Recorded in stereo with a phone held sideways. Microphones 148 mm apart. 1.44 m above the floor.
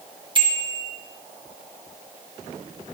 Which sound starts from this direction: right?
A bicycle bell, at 0.3 s.